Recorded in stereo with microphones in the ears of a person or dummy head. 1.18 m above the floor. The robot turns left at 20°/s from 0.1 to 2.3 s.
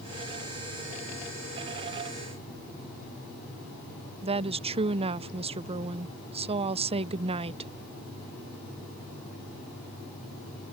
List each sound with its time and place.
4.2 s a woman speaking: 25° right (ahead or behind)